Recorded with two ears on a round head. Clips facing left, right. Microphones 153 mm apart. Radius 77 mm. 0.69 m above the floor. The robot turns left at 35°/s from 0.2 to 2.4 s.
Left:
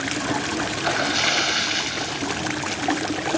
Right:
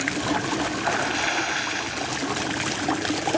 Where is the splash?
110° left; by 2.8 s 50° left.